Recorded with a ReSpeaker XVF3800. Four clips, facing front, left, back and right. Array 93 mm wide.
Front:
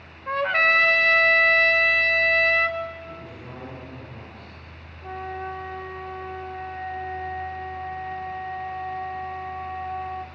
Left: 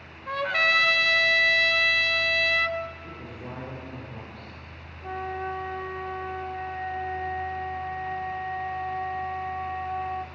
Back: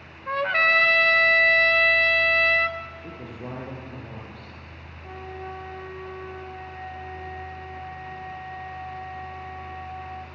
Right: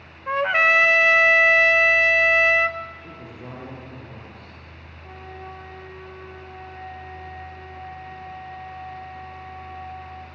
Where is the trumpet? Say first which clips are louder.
Right 6 dB, front 1 dB; 85° right, 1.1 m.